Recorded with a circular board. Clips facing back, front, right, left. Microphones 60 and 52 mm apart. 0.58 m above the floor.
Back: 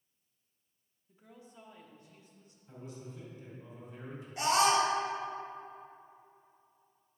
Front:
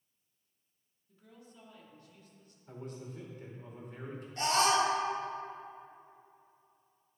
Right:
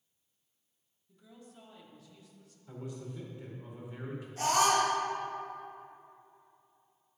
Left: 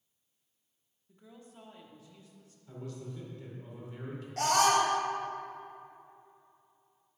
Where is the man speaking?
20° right, 2 m.